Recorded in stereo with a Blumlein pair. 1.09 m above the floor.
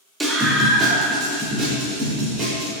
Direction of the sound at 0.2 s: 10° right.